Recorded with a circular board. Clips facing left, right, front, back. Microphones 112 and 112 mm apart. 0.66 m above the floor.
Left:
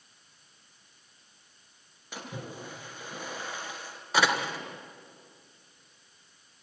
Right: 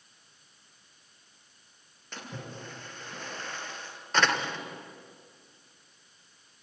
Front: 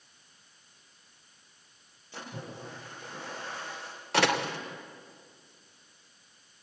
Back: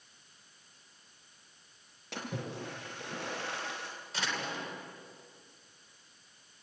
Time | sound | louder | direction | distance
2.1 | a splash | left 2 dB, back 3 dB | 170° left | 4 m
4.1 | a door slam | left 1 dB, front 11 dB | 10° left | 1.7 m